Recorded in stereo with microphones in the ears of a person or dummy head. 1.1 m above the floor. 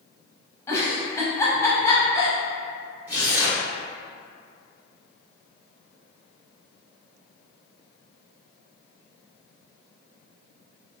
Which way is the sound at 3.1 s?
10° right (ahead or behind).